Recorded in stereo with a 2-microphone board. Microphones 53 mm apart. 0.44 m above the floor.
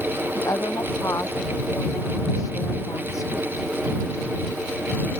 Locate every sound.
0.3 s a woman speaking: 80° left